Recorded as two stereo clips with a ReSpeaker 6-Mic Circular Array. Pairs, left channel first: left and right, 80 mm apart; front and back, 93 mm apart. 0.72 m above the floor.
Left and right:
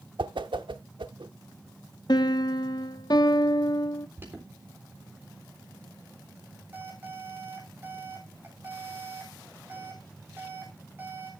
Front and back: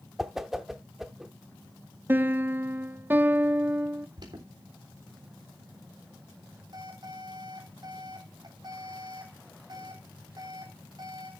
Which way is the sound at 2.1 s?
115° left.